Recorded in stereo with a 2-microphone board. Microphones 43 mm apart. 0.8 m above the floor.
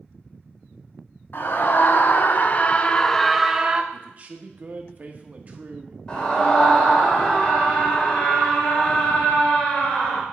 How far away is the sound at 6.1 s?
About 3 m.